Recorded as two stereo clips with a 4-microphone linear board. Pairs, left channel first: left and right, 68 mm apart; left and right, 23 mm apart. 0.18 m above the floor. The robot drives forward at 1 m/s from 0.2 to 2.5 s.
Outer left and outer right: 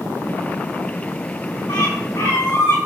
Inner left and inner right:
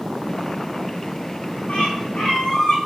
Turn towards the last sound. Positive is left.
turn(degrees=65)  # may be behind; listen again after turning